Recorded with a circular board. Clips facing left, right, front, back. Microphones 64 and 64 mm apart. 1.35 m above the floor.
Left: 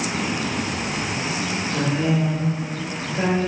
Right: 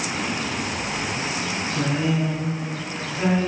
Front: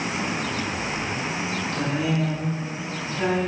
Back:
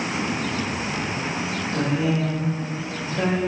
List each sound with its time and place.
1.7 s a woman speaking: 115° left, 1.7 m; by 3.4 s 145° left, 2.0 m